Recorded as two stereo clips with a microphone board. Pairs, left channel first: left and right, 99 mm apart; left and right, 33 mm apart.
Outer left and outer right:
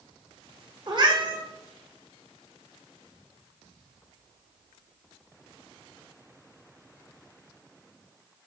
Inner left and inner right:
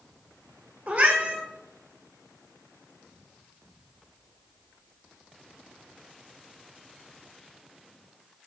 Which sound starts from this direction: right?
A cat meowing, at 0.9 s.